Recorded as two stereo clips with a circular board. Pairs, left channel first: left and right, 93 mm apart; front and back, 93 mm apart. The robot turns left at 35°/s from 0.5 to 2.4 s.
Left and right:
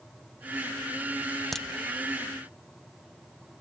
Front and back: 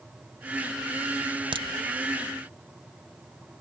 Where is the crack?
175° left, 0.6 m; by 1.7 s 170° left, 0.6 m.